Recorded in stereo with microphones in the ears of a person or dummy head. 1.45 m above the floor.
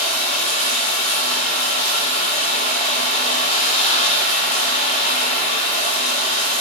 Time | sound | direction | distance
0.0 | running water | 45° left (ahead or behind) | 7.5 m